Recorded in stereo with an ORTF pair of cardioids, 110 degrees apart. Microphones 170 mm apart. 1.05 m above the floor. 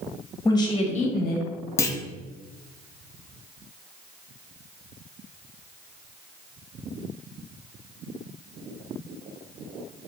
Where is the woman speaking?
20° left, 1.2 m; by 1.5 s 75° left, 0.9 m.